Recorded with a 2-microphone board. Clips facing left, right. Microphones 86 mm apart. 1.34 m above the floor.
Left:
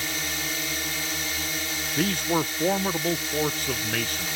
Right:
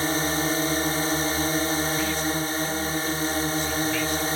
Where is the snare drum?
I don't hear a snare drum.